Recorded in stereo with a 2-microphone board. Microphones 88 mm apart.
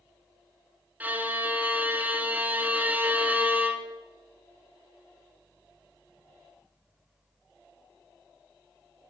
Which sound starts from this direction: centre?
A violin, at 1.0 s.